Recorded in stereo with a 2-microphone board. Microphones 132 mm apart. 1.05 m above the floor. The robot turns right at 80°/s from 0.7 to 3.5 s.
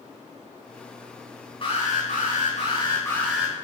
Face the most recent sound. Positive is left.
turn(degrees=-165)